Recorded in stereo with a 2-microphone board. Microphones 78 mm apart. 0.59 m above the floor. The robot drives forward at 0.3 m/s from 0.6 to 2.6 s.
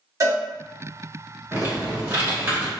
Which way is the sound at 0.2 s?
45° right (ahead or behind).